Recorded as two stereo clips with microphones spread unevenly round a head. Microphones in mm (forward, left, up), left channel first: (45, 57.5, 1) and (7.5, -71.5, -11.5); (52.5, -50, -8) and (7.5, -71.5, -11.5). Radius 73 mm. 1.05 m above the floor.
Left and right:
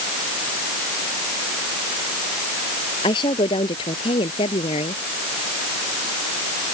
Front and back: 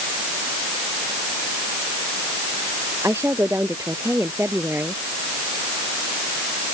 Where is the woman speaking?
135° left; by 5.0 s 130° left.